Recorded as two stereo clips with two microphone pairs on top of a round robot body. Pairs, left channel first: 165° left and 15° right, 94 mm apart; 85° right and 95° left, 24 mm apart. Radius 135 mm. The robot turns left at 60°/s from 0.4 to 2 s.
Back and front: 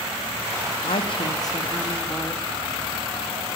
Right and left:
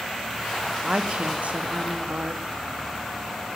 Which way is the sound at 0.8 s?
155° left.